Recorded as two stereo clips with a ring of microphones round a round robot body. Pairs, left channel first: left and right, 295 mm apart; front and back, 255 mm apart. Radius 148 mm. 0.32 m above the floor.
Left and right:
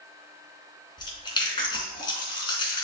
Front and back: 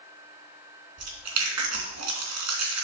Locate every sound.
1.0 s chewing: 165° left, 3 m